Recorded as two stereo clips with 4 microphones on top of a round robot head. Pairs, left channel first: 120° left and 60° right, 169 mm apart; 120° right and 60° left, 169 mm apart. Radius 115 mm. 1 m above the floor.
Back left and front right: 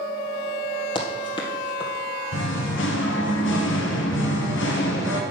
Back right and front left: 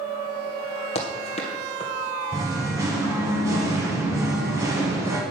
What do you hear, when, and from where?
0.9 s running footsteps: 175° right, 1.9 m
2.3 s singing: 130° left, 1.6 m